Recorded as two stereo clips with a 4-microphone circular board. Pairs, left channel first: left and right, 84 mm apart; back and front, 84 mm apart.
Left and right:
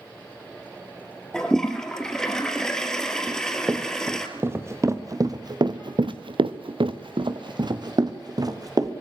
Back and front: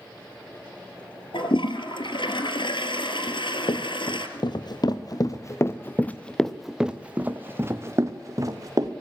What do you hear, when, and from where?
1.3 s a toilet flushing: 175° left, 3 m
3.3 s running footsteps: 165° right, 3.5 m; by 8.9 s 45° right, 3.5 m